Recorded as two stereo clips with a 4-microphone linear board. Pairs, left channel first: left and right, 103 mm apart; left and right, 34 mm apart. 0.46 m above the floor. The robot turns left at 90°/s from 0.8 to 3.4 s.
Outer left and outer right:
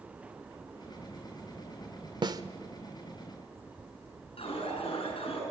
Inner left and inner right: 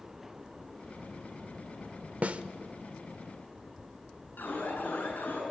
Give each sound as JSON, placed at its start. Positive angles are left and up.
{"t": 2.2, "sound": "a snare drum", "side_deg": -45, "distance_m": 0.8}
{"t": 4.4, "sound": "an alarm", "side_deg": 70, "distance_m": 7.0}